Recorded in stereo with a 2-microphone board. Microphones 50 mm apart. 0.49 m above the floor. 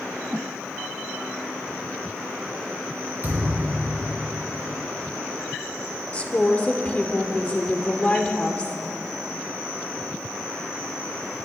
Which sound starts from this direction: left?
A woman speaking, at 6.1 s.